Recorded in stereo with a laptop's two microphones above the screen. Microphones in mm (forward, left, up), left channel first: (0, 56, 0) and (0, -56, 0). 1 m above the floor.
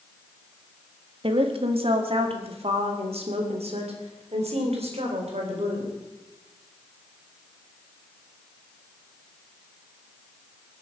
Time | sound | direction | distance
1.2 | a woman speaking | 55° right (ahead or behind) | 1.5 m